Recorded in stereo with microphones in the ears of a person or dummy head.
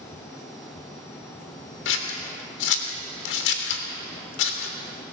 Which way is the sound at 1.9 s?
70° left (ahead or behind).